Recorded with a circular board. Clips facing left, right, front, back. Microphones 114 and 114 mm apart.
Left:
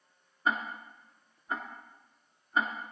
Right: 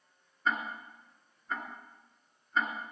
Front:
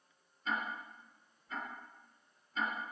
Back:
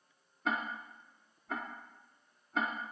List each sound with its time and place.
0.5 s ticking: 170° left, 1.9 m